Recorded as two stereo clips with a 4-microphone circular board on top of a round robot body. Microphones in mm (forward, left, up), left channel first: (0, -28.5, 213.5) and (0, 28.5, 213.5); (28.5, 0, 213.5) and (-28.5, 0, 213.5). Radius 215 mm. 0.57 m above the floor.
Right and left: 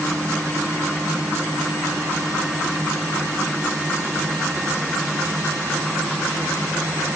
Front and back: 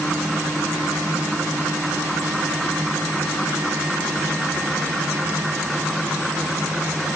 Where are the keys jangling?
I don't hear keys jangling.